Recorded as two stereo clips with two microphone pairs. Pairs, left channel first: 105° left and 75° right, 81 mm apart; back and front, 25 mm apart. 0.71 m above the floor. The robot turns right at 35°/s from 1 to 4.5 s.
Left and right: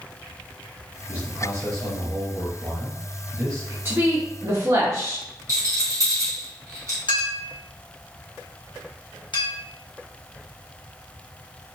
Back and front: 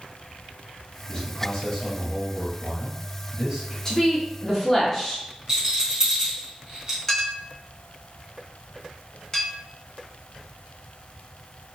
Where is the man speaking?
125° right, 1.7 m; by 3.8 s 30° right, 1.7 m.